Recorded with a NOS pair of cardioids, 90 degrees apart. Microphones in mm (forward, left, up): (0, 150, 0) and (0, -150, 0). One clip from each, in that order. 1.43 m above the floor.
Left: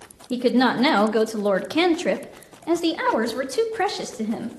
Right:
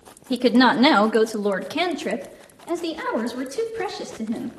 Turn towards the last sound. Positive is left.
turn(degrees=55)